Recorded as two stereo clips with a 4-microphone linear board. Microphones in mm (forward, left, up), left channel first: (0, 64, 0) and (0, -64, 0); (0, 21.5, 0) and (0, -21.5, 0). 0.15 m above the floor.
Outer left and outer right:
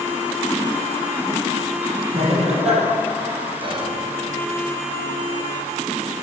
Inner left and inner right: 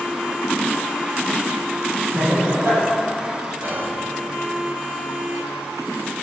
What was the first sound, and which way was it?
Laughter, 55° right (ahead or behind).